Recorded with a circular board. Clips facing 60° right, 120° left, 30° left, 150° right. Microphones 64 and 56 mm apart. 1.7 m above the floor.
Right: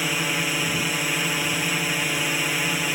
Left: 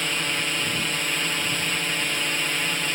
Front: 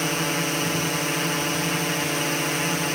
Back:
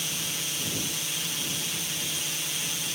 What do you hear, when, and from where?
0.0 s a drone: 20° left